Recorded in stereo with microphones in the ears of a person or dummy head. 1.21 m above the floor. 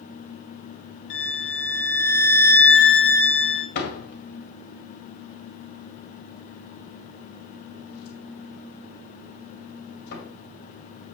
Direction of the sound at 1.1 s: 70° left (ahead or behind).